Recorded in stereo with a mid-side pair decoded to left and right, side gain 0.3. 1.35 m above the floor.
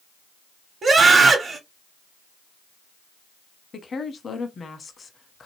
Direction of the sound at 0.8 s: 60° right.